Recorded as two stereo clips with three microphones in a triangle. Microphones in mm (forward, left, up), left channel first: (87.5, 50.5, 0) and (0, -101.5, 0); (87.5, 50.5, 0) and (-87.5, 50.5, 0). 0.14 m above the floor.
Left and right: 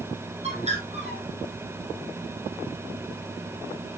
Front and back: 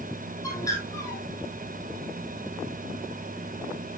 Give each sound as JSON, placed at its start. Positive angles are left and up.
{"t": 0.4, "sound": "a bird", "azimuth_deg": -70, "distance_m": 3.5}